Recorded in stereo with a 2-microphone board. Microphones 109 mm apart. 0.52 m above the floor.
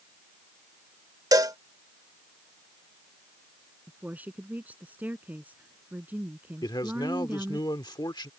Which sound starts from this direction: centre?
A woman speaking, at 3.9 s.